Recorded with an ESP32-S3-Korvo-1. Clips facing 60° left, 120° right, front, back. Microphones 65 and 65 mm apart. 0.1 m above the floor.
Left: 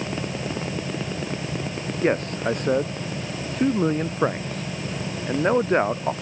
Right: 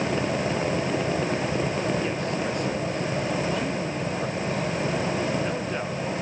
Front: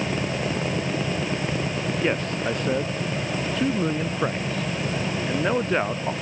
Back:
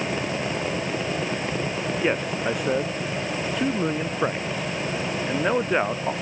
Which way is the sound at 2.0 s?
100° left.